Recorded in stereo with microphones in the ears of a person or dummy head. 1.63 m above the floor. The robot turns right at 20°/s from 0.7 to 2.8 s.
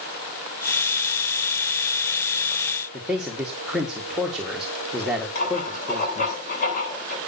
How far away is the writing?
About 9 m.